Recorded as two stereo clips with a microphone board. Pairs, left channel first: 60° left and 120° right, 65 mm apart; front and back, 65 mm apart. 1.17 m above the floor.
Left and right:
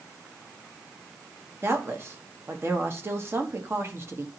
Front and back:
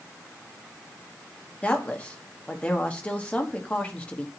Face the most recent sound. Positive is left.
turn(degrees=-70)